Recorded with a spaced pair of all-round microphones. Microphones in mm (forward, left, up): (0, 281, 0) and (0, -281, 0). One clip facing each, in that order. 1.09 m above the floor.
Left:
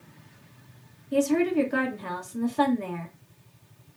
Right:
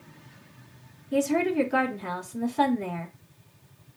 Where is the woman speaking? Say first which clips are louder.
Left 2 dB; 5° right (ahead or behind), 0.9 m.